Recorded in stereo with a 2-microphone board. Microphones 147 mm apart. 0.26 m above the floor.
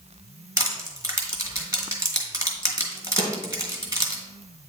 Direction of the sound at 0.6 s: 20° right (ahead or behind).